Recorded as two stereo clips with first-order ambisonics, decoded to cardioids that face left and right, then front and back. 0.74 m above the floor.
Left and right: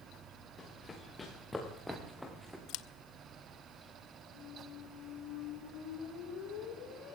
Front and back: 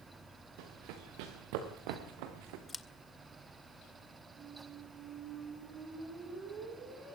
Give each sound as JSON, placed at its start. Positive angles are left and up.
{"t": 0.6, "sound": "running footsteps", "azimuth_deg": 170, "distance_m": 5.0}
{"t": 2.7, "sound": "scissors", "azimuth_deg": 75, "distance_m": 0.7}
{"t": 4.3, "sound": "a squeak", "azimuth_deg": 130, "distance_m": 6.0}